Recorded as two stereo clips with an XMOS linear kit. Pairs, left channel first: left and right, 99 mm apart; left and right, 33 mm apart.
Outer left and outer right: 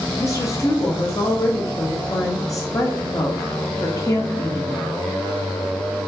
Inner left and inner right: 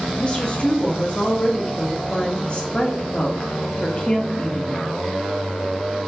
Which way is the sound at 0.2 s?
30° left (ahead or behind).